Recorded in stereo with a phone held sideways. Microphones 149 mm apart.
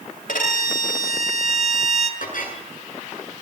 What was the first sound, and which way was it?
A violin, 80° left.